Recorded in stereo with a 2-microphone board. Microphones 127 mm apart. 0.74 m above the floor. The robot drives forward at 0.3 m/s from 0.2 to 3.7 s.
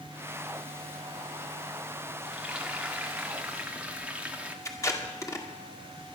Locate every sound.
2.2 s frying: 10° right (ahead or behind), 1.8 m
4.7 s tape being pulled: 25° left (ahead or behind), 2 m